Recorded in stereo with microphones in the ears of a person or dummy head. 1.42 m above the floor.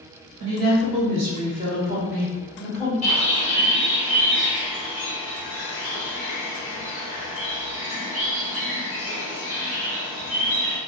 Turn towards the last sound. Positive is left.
turn(degrees=40)  # may be behind; listen again after turning